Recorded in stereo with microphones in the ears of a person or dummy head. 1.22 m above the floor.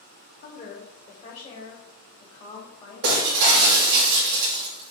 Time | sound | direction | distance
0.4 | a woman speaking | 40° left (ahead or behind) | 2 m
3.0 | breaking glass | 65° right (ahead or behind) | 1.7 m